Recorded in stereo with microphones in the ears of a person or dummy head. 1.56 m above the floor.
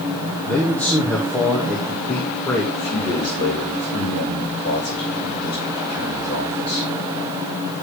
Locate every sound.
0.4 s a man speaking: 5° left (ahead or behind), 2.5 m
2.7 s a man speaking: 45° left (ahead or behind), 5 m